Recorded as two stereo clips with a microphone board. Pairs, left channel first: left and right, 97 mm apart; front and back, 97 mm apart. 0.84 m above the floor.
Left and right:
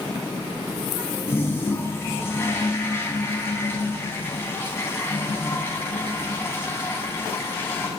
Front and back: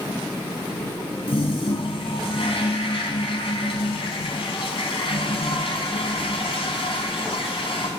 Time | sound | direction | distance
1.3 | a toilet flushing | 25° left | 4 m